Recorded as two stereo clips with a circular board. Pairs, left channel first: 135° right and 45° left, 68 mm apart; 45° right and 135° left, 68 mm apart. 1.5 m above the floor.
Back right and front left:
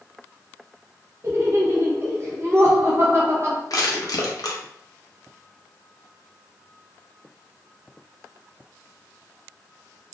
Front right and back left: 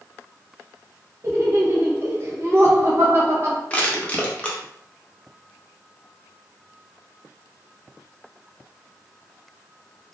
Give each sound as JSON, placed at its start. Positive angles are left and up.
{"t": 1.2, "sound": "laughter", "azimuth_deg": 90, "distance_m": 0.6}
{"t": 3.7, "sound": "crushing", "azimuth_deg": -115, "distance_m": 0.7}